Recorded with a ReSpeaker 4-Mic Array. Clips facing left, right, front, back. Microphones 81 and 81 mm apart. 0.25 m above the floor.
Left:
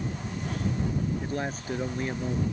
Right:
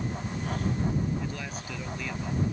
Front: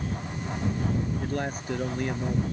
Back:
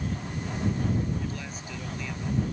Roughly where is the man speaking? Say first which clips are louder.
Left 4 dB, front 6 dB; ahead left.